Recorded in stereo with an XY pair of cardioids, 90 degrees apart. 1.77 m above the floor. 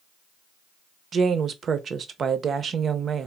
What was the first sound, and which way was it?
A woman speaking, 55° right.